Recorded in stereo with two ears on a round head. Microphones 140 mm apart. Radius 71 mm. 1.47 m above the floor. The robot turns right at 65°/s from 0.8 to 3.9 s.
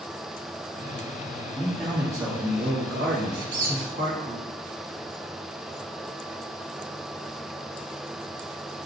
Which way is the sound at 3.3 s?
50° right (ahead or behind).